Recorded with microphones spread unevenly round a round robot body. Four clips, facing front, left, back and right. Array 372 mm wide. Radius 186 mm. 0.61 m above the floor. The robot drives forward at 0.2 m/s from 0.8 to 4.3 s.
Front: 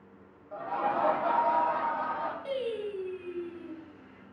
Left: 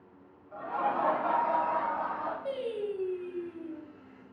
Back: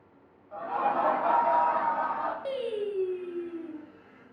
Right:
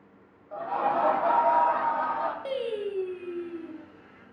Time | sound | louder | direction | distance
0.5 | laughter | right 4 dB, back 2 dB | 65° right | 1.0 m
2.5 | singing | right 3 dB, back 2 dB | 115° right | 0.6 m